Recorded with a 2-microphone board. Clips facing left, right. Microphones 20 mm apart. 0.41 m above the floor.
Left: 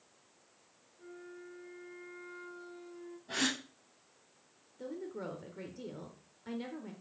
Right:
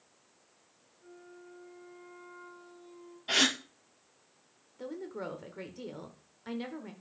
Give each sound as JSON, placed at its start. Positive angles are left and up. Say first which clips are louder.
{"t": 1.0, "sound": "a flute", "louder": "left 3 dB", "side_deg": 65, "distance_m": 4.0}
{"t": 3.3, "sound": "a gasp", "louder": "right 7 dB", "side_deg": -85, "distance_m": 1.6}
{"t": 4.8, "sound": "a woman speaking", "louder": "right 2 dB", "side_deg": -25, "distance_m": 0.9}